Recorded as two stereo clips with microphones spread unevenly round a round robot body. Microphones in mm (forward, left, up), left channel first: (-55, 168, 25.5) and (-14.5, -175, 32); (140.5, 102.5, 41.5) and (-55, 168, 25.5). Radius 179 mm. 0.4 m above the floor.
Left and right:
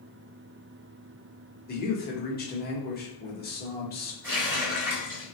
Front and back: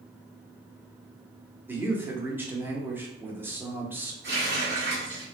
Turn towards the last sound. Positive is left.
turn(degrees=-165)